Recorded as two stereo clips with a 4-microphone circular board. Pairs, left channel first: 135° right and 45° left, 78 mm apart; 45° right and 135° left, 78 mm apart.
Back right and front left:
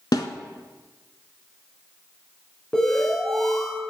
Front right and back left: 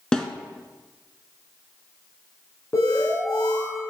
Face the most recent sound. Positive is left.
turn(degrees=-55)